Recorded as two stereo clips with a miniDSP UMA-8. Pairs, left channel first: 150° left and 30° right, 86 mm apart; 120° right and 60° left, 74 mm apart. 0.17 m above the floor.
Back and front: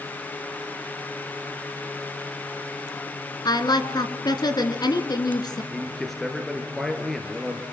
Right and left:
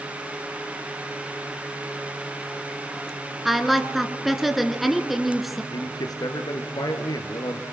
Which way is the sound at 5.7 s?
125° right.